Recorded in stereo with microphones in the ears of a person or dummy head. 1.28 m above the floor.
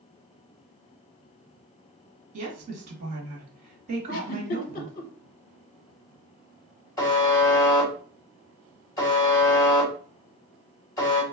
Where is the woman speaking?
40° right (ahead or behind), 1.5 m.